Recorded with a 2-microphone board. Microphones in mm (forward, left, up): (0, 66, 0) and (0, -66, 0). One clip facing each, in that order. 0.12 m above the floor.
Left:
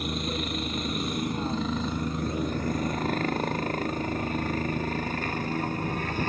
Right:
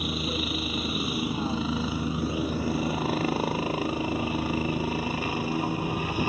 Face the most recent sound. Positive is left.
turn(degrees=-10)  # may be behind; listen again after turning